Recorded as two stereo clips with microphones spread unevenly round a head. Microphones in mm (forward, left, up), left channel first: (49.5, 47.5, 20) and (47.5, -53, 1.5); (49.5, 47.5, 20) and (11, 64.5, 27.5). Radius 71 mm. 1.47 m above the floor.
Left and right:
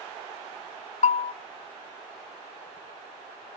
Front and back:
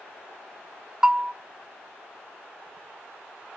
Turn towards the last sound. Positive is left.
turn(degrees=80)